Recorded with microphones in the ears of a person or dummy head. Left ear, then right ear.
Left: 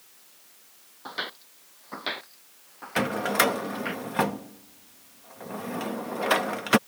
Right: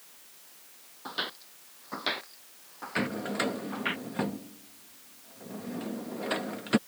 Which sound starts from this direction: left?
A drawer, at 3.0 s.